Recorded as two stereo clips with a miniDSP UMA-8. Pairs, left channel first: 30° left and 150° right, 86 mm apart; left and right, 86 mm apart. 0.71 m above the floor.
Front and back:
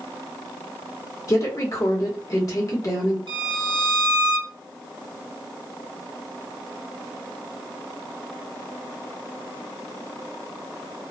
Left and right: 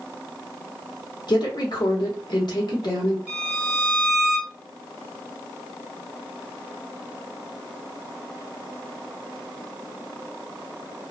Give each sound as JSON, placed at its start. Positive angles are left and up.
{"t": 1.3, "sound": "a woman speaking", "azimuth_deg": 70, "distance_m": 1.2}
{"t": 3.3, "sound": "a violin", "azimuth_deg": -165, "distance_m": 1.1}